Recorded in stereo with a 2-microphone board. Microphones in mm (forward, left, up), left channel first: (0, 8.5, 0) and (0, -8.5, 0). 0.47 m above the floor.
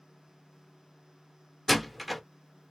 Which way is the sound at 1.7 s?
5° left (ahead or behind).